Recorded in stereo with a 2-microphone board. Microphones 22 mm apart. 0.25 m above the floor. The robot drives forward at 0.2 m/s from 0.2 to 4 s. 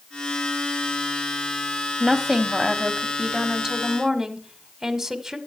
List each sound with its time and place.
2.0 s a woman speaking: 20° right (ahead or behind), 1.1 m; by 5.4 s 15° right (ahead or behind), 1.3 m